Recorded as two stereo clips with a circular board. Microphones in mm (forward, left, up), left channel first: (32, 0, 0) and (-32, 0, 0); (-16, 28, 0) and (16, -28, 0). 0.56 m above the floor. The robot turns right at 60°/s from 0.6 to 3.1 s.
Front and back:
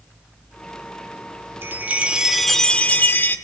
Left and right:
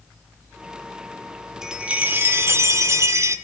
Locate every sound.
1.6 s a chime: 140° right, 2 m; by 3.4 s 50° right, 2 m